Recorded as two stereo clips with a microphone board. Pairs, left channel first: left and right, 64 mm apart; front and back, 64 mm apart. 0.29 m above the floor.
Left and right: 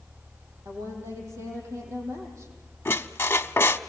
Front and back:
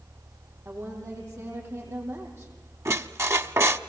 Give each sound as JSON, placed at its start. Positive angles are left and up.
{"t": 0.7, "sound": "a woman speaking", "azimuth_deg": -130, "distance_m": 9.0}
{"t": 2.9, "sound": "a squeak", "azimuth_deg": 140, "distance_m": 0.8}